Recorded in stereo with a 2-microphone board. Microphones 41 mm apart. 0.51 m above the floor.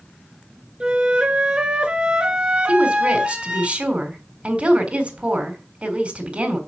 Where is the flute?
25° right (ahead or behind), 1.2 m.